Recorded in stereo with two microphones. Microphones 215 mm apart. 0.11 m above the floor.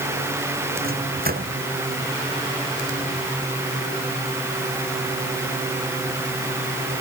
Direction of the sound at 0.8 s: 45° right (ahead or behind).